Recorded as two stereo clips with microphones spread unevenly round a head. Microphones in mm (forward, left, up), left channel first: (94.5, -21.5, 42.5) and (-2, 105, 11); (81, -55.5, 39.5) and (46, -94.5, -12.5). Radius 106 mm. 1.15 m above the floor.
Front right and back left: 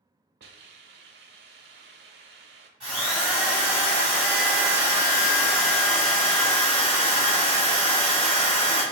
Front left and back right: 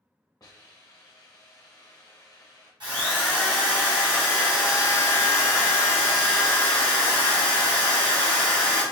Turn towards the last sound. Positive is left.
turn(degrees=-140)